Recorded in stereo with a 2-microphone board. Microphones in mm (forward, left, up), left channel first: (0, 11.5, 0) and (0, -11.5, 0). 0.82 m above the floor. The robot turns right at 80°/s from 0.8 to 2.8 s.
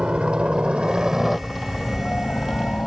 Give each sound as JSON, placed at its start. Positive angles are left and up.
{"t": 0.0, "sound": "a helicopter", "side_deg": -55}